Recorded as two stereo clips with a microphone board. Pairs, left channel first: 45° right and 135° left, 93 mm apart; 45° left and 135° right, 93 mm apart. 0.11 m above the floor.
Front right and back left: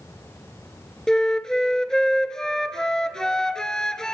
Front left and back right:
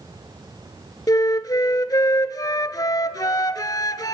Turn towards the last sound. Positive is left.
turn(degrees=35)